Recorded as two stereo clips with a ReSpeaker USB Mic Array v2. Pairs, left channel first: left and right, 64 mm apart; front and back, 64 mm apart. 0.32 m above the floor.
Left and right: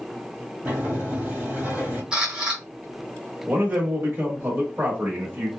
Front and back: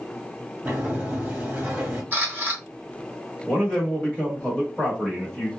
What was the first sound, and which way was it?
A sliding door, 130° right.